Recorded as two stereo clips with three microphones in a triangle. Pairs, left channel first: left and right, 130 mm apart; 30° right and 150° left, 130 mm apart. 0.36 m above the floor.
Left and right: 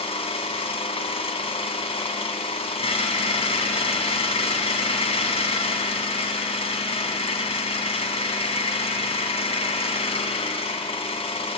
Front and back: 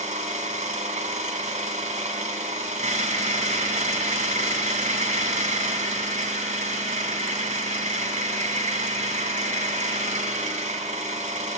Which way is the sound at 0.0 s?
130° left.